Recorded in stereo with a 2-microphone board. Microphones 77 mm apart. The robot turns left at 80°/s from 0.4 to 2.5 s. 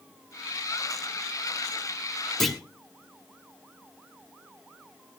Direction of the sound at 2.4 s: 5° left (ahead or behind).